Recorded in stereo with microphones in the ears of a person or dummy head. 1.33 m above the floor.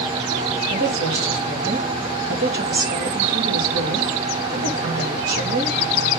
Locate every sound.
0.7 s a woman speaking: 60° right (ahead or behind), 2.5 m